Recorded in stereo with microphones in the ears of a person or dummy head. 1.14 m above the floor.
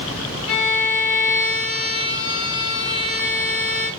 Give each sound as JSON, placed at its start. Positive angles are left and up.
{"t": 0.5, "sound": "a violin", "side_deg": 70, "distance_m": 1.2}